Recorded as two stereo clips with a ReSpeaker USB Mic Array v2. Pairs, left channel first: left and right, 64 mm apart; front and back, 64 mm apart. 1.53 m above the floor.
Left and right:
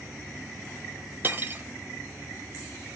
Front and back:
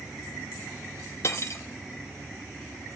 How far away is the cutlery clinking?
About 1.2 m.